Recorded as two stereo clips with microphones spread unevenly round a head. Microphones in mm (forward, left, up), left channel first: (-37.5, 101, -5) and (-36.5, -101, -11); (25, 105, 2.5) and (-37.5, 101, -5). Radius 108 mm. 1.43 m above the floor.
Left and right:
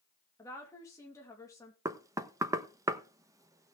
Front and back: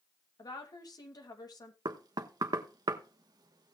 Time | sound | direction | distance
0.4 | a woman speaking | 15° left | 3 m
1.9 | knocking | 165° right | 1.0 m